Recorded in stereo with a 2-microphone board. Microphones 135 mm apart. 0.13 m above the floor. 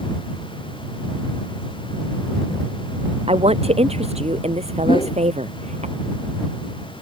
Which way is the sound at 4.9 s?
40° left (ahead or behind).